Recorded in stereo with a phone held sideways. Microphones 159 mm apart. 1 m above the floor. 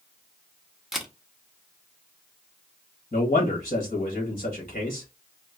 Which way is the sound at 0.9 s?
Centre (ahead or behind).